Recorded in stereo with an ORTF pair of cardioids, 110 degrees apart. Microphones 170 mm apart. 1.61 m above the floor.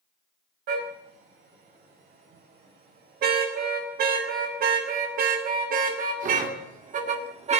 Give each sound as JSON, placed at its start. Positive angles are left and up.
{"t": 0.7, "sound": "a car horn", "azimuth_deg": -70, "distance_m": 5.0}